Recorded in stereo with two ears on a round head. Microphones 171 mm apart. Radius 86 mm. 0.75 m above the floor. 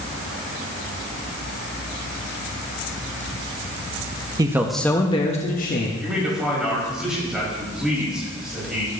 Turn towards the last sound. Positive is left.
turn(degrees=-5)  # may be behind; listen again after turning